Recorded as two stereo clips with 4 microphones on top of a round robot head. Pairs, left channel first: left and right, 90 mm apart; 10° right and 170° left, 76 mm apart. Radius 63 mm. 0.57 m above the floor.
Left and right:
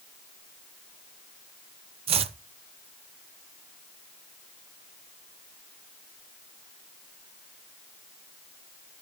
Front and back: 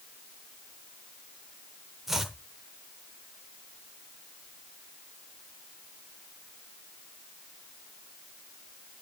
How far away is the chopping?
About 0.6 m.